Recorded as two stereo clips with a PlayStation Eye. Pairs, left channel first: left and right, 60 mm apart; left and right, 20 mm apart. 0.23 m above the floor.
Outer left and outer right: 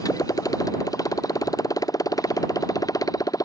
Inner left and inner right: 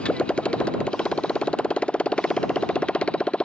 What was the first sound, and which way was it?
A motorcycle, 85° left.